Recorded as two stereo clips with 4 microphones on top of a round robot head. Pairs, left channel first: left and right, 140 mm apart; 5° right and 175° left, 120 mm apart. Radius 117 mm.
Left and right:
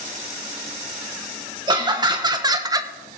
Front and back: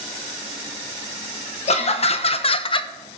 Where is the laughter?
30° right, 1.4 m; by 2.9 s 35° right, 0.6 m.